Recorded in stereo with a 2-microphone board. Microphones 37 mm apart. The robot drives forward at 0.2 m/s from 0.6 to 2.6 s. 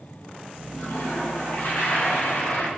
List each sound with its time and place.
0.7 s a toilet flushing: 60° left (ahead or behind), 0.6 m